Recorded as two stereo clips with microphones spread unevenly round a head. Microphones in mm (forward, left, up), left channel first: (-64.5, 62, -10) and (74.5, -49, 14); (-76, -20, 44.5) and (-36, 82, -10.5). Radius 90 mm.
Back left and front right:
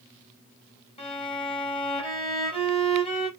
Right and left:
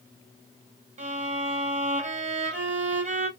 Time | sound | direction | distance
1.0 | a violin | 85° left | 1.8 m